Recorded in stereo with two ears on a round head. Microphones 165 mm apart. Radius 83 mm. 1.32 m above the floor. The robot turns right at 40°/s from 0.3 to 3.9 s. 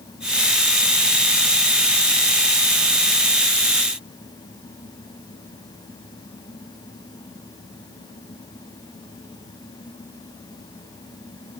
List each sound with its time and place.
Only background noise.